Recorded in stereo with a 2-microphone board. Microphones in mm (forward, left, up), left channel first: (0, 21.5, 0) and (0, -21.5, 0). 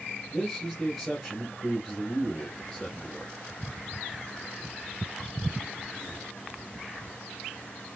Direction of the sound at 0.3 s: Centre (ahead or behind).